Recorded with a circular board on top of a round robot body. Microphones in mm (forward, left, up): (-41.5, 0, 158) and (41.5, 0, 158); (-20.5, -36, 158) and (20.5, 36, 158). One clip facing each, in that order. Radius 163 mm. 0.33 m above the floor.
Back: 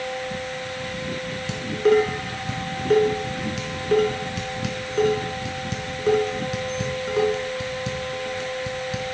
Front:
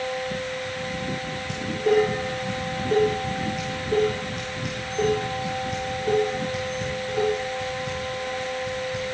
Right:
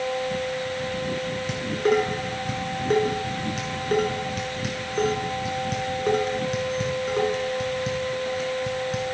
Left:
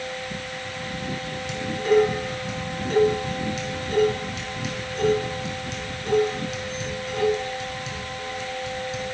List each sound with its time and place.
1.5 s dishes clattering: 165° right, 3.5 m